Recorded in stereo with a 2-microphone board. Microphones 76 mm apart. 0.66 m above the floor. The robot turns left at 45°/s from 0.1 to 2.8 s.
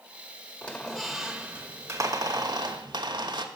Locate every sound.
0.6 s a squeak: 20° left, 1.2 m; by 3.5 s 80° right, 1.2 m